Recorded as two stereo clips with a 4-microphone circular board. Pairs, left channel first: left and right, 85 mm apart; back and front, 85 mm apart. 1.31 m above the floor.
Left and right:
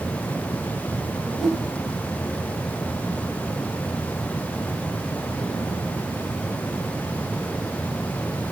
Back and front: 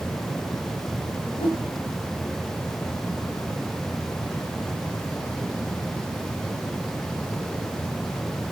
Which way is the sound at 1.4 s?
Straight behind.